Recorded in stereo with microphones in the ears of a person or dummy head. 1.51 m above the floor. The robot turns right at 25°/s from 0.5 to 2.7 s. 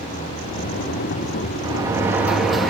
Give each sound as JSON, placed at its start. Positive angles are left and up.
{"t": 1.6, "sound": "a sliding door", "side_deg": -20, "distance_m": 2.0}